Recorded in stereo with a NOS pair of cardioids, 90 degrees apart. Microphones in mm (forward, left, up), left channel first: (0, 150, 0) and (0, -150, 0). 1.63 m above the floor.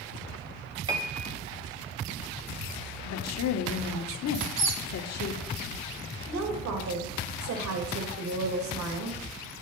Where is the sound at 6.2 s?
65° right, 2.5 m.